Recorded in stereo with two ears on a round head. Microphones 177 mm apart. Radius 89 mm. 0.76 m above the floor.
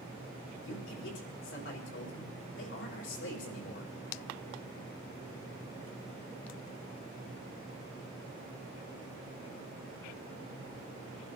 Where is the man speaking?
65° left (ahead or behind), 3.5 m.